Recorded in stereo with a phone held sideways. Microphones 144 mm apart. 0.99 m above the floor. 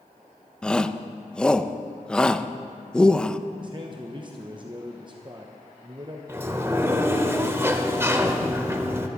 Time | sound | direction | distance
0.6 | a shout | 5° left (ahead or behind) | 0.5 m
3.6 | a man speaking | 35° right (ahead or behind) | 1.0 m
6.3 | a sliding door | 20° right (ahead or behind) | 1.0 m